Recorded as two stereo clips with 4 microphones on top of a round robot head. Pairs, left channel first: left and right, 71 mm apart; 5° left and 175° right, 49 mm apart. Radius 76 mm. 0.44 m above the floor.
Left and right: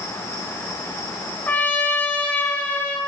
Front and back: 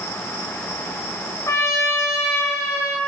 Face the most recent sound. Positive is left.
turn(degrees=25)